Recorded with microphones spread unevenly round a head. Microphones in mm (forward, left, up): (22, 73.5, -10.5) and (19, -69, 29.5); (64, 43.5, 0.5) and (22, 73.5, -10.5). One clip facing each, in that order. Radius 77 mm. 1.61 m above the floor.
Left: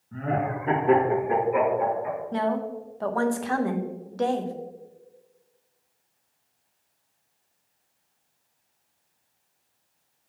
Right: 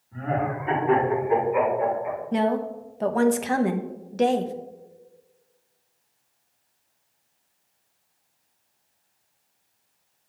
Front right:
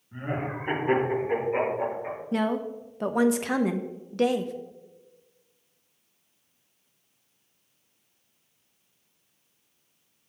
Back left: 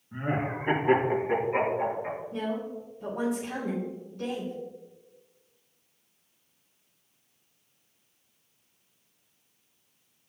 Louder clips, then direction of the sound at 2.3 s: Right 4 dB, front right 9 dB; 20° right.